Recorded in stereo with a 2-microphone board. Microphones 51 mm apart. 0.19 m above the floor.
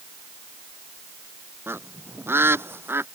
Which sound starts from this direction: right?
A bird, at 1.7 s.